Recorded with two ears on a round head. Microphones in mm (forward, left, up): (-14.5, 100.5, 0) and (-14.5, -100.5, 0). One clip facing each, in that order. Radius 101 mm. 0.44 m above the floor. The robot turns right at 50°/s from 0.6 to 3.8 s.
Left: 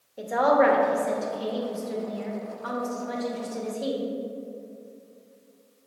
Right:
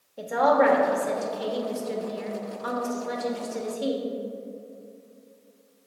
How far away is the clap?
I don't hear a clap.